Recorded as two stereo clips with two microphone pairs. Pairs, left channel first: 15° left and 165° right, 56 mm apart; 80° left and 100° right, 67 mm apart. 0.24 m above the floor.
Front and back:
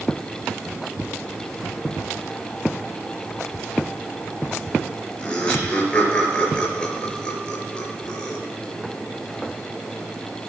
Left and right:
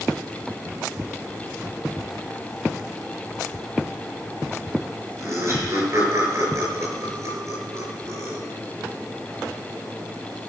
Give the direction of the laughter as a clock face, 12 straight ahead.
2 o'clock.